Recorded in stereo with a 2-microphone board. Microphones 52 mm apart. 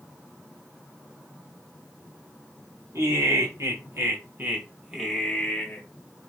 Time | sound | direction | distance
3.0 | laughter | 70° right (ahead or behind) | 2.5 m